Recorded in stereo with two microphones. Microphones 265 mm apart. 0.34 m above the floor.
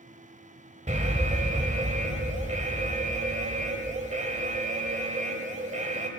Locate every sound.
0.9 s an alarm: 25° right (ahead or behind), 1.3 m